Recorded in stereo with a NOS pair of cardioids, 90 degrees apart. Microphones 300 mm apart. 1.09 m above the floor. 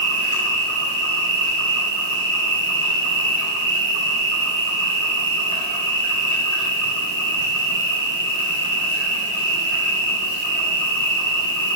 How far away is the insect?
About 1.2 m.